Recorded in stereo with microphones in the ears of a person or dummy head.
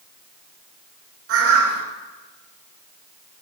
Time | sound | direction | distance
1.3 | a bird | 75° right (ahead or behind) | 5 m